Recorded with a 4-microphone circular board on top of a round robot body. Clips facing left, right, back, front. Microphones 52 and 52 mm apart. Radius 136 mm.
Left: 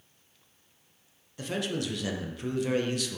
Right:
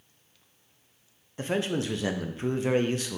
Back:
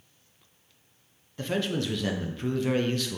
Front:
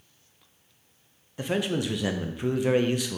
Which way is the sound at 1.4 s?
65° right.